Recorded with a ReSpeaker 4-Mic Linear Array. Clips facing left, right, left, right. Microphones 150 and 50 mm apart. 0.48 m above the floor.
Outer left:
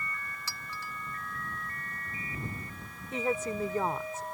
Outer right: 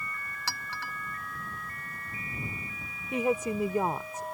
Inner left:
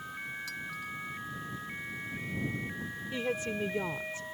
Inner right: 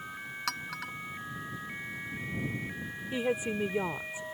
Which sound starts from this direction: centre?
A woman speaking, at 3.1 s.